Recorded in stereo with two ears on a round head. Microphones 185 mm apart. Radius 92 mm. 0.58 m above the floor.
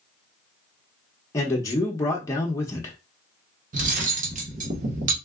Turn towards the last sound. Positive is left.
turn(degrees=-40)  # may be behind; listen again after turning